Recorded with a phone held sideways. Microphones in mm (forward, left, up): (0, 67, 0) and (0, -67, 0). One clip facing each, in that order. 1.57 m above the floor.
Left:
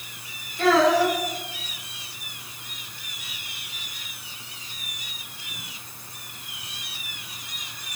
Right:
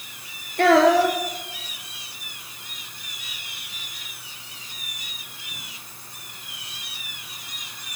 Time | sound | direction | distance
0.6 | a child speaking | 70° right (ahead or behind) | 0.9 m